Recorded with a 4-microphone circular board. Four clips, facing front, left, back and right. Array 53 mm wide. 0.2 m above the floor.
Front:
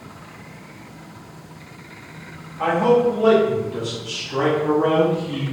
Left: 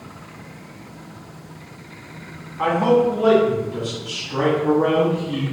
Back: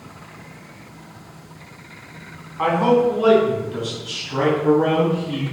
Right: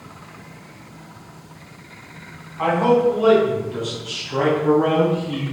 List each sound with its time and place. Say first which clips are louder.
2.6 s a man speaking: even, even; 170° right, 1.6 m; by 5.4 s 140° right, 4.5 m